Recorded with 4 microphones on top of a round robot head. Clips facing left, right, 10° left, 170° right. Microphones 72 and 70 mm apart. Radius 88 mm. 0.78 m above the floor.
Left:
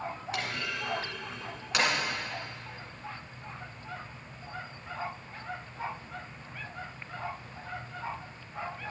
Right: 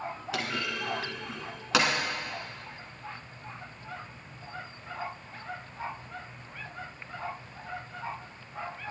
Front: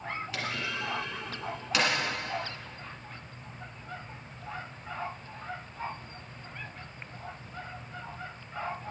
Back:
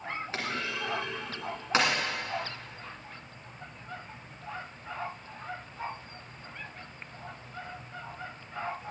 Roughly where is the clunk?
Right.